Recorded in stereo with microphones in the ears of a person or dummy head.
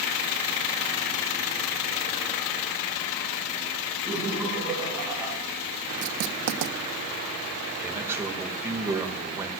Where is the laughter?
10° right (ahead or behind), 6.5 m.